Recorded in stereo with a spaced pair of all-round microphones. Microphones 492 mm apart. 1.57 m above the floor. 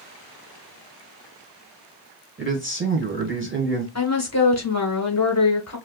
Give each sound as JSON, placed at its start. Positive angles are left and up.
{"t": 2.4, "sound": "a man speaking", "side_deg": -25, "distance_m": 1.6}
{"t": 4.0, "sound": "a woman speaking", "side_deg": 30, "distance_m": 1.4}